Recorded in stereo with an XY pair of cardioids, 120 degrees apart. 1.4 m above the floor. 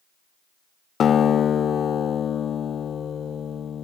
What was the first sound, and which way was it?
A guitar, 45° left.